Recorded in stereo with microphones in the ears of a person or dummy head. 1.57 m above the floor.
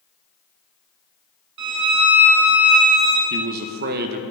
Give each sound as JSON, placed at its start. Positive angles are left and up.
{"t": 1.6, "sound": "a violin", "side_deg": -65, "distance_m": 1.5}
{"t": 3.3, "sound": "a man speaking", "side_deg": -50, "distance_m": 0.8}